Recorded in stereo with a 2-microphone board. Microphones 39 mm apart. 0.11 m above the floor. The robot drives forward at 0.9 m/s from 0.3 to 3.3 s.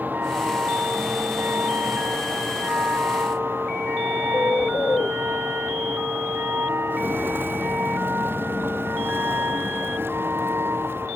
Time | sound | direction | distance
0.0 | a vehicle | 55° right (ahead or behind) | ?
4.3 | a bird | 55° left (ahead or behind) | ?
6.9 | footsteps | 60° right (ahead or behind) | ?